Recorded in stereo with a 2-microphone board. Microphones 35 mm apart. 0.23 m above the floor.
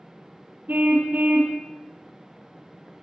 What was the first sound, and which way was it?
A car horn, 55° right (ahead or behind).